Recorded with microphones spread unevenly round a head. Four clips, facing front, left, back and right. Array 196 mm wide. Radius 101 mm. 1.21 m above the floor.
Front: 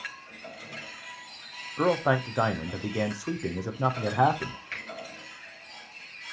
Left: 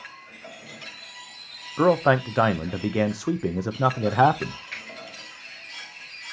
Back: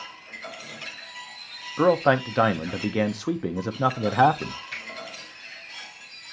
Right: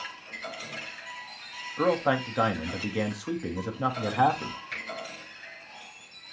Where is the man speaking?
120° left, 0.5 m.